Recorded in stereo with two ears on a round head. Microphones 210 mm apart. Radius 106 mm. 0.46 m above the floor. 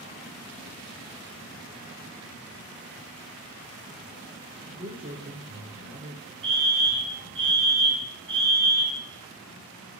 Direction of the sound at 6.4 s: 20° right (ahead or behind).